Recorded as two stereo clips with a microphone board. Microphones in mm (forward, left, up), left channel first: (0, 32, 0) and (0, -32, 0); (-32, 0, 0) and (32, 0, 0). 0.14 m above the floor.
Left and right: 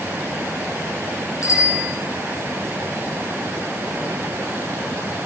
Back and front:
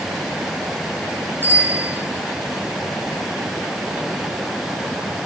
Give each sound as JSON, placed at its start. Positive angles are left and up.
{"t": 1.4, "sound": "a bicycle bell", "azimuth_deg": 55, "distance_m": 6.0}